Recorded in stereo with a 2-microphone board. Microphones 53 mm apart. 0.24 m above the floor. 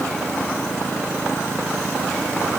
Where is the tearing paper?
I don't hear tearing paper.